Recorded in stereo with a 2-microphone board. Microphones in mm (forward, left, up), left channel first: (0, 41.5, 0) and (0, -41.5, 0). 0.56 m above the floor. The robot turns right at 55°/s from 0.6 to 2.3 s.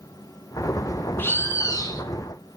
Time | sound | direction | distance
1.2 | a bird | 35° left | 1.8 m